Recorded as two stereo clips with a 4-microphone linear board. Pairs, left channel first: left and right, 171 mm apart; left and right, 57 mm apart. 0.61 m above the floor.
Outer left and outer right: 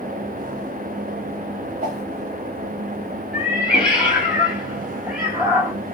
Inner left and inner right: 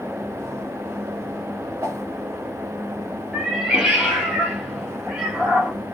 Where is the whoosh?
55° right (ahead or behind), 1.6 m.